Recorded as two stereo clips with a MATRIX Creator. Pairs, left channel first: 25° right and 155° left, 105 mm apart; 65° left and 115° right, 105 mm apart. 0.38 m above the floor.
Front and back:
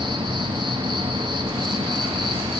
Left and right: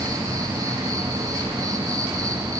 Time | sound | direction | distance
0.0 | an insect | 165° right | 1.7 m